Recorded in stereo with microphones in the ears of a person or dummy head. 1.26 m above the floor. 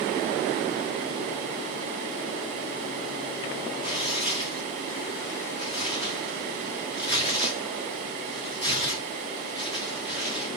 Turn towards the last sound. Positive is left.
turn(degrees=25)  # may be behind; listen again after turning